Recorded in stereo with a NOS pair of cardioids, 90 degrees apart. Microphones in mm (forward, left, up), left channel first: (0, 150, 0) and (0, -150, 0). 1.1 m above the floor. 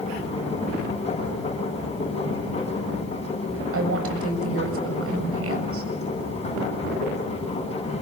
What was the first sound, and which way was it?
A machine running, 20° left.